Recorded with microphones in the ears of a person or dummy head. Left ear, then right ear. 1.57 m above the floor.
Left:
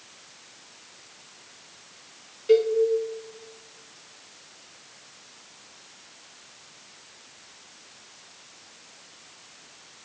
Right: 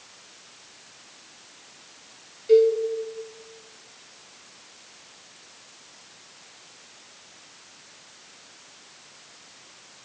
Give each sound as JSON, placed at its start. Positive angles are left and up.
{"t": 2.5, "sound": "a cowbell", "side_deg": 45, "distance_m": 1.0}